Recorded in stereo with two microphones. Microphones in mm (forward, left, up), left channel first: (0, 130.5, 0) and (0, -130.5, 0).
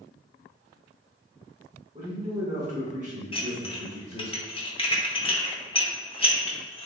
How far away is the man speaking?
About 0.9 m.